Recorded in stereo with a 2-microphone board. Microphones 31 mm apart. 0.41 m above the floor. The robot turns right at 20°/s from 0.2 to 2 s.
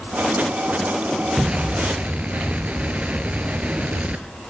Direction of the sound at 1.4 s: 30° right (ahead or behind).